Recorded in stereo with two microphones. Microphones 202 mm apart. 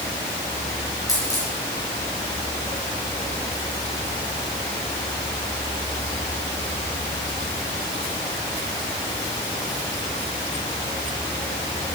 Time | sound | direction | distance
1.1 | a dropped coin | 15° left (ahead or behind) | 6 m